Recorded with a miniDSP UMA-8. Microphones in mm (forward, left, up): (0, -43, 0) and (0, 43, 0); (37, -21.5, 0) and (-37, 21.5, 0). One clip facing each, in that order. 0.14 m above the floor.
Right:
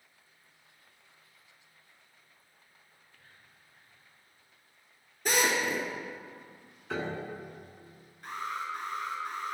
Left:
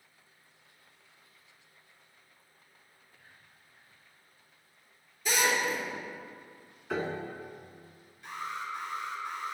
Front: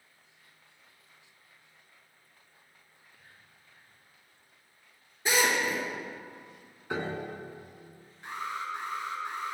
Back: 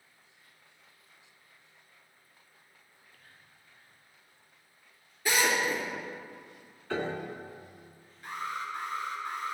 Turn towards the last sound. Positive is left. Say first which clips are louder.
# right 2 dB, even
turn(degrees=-85)